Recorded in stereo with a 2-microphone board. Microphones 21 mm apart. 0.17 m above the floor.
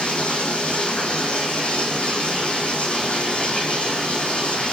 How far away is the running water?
About 5 m.